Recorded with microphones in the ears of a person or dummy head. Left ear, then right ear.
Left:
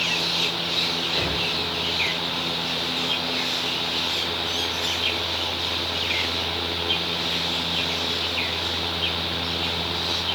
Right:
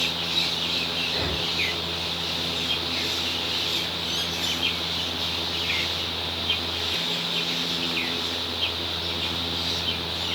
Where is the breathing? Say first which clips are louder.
Left 2 dB; 30° left (ahead or behind), 9 m.